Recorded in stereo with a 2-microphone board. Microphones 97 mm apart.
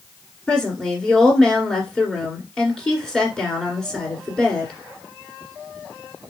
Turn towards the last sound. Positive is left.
turn(degrees=5)  # may be behind; listen again after turning